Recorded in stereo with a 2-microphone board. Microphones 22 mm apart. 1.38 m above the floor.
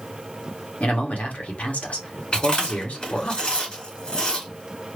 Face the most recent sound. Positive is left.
turn(degrees=40)  # may be behind; listen again after turning